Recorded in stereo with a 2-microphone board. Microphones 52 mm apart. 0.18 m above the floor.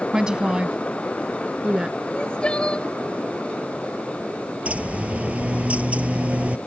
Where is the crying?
20° left (ahead or behind).